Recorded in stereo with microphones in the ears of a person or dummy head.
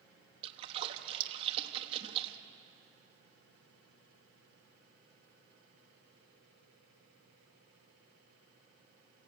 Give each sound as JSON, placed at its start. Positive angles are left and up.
{"t": 0.4, "sound": "a splash", "side_deg": -35, "distance_m": 1.4}